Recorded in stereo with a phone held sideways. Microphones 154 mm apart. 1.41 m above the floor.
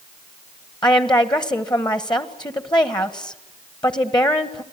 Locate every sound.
0.8 s a woman speaking: 30° left (ahead or behind), 1.5 m